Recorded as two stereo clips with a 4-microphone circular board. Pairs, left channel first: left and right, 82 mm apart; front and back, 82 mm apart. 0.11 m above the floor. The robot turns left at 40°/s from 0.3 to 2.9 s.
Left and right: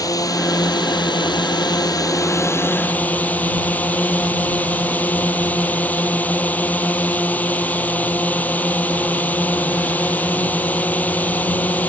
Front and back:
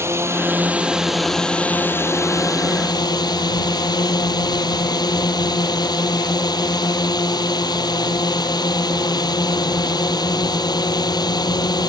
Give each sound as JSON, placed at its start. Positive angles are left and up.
{"t": 0.0, "sound": "a drone", "azimuth_deg": 125}